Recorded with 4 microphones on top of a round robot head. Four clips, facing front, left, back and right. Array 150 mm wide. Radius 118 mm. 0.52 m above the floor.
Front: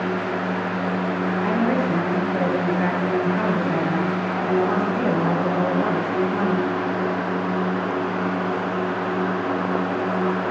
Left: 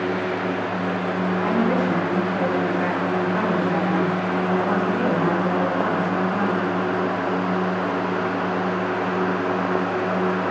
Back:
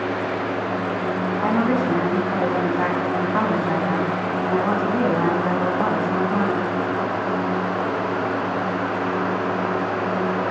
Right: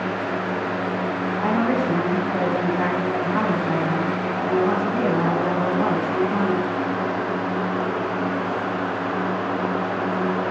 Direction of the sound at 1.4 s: 150° right.